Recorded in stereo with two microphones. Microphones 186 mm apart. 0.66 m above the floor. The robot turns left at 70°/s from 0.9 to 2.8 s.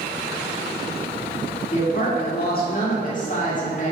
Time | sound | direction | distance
1.7 | a woman speaking | 135° left | 2.0 m